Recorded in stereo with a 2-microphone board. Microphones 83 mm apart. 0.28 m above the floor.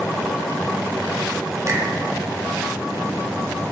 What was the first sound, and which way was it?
A finger snap, 45° right (ahead or behind).